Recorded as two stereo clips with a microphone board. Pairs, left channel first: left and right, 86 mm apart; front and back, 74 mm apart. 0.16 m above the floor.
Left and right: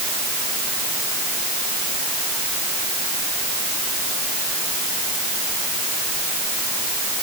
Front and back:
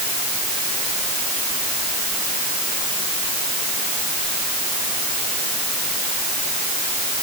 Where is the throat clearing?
I don't hear throat clearing.